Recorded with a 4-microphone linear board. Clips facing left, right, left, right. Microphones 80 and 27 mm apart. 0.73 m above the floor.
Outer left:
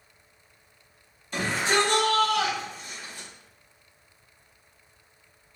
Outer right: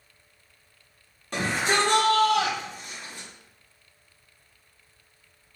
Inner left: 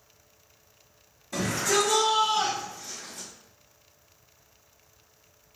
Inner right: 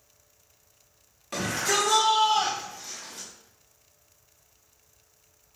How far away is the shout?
About 1.8 m.